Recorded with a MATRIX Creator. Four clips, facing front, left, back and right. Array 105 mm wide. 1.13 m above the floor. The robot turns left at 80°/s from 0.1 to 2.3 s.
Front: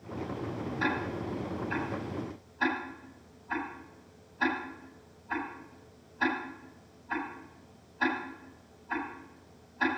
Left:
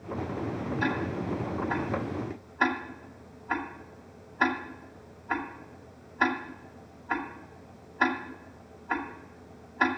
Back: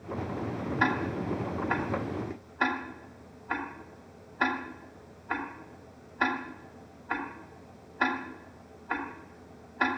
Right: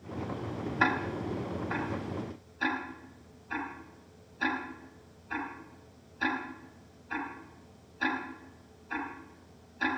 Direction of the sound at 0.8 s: 110° right.